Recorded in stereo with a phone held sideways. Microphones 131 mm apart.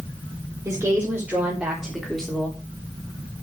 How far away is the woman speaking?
About 4 m.